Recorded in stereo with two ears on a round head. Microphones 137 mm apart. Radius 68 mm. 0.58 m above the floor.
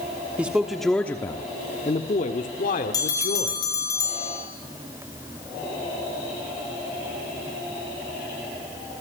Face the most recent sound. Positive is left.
turn(degrees=25)  # may be behind; listen again after turning